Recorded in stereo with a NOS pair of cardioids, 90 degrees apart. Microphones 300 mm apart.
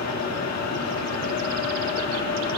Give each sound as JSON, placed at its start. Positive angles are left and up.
{"t": 0.0, "sound": "a fan", "azimuth_deg": 65, "distance_m": 2.0}